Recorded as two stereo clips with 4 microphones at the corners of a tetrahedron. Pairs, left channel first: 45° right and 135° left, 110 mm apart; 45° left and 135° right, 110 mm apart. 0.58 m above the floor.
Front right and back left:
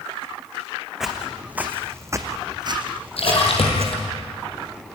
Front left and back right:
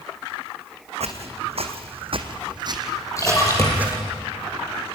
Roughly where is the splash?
Ahead.